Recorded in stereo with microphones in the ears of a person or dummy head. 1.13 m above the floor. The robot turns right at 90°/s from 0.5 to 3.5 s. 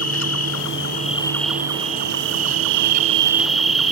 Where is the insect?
90° left; by 3.9 s straight ahead.